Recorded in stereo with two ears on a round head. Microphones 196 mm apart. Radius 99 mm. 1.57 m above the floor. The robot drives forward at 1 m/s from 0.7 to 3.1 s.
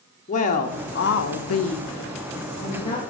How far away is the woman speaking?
About 1.0 m.